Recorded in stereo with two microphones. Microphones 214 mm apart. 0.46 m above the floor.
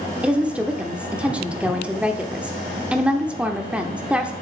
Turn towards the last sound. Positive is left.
turn(degrees=-5)  # may be behind; listen again after turning